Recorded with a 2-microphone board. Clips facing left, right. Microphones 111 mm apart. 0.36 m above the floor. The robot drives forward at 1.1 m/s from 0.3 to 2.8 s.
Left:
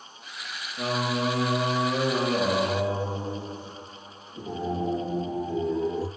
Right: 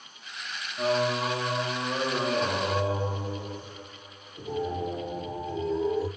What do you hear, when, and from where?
0.8 s singing: 80° left, 6 m; by 6.1 s 65° left (ahead or behind), 6.5 m